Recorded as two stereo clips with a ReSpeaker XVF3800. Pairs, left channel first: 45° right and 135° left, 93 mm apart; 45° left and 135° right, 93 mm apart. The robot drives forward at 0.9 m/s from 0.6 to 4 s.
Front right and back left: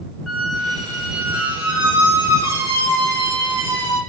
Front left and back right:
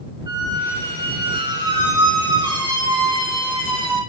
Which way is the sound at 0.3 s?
125° right.